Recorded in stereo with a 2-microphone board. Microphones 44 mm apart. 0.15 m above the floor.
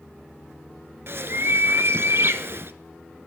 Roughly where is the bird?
Right.